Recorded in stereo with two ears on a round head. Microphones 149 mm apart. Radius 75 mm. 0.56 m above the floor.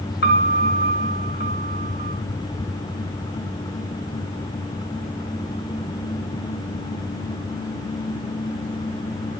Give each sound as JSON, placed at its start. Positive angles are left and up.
{"t": 0.2, "sound": "a piano", "side_deg": 60, "distance_m": 3.0}